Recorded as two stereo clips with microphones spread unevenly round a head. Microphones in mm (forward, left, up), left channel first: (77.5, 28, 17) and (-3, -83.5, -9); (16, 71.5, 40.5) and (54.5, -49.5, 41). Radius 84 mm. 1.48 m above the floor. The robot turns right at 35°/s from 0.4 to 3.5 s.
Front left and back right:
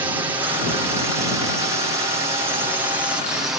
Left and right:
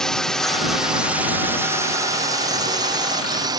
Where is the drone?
170° right; by 3.6 s 60° right.